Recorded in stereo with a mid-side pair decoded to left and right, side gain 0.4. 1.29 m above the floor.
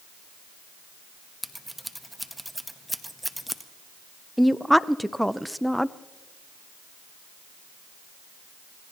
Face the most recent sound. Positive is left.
turn(degrees=0)